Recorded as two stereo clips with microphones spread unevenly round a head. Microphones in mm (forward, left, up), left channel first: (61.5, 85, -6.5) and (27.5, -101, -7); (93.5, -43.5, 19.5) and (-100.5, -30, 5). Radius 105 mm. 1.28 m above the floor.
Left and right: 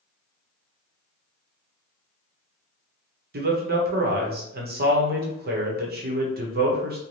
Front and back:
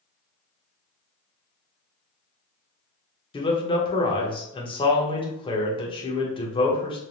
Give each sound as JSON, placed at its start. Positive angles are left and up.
{"t": 3.3, "sound": "a man speaking", "azimuth_deg": -70, "distance_m": 0.9}